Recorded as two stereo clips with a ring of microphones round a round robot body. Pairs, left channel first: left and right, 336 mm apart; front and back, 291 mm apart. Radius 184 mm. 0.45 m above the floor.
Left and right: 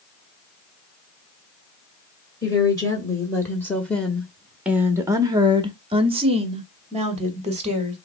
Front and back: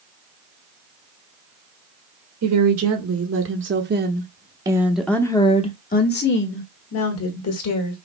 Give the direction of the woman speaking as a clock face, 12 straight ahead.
6 o'clock.